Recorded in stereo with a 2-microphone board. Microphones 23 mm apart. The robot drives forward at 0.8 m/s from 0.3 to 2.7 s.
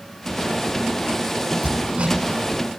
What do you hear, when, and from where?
1.6 s hammering: 60° right (ahead or behind), 1.9 m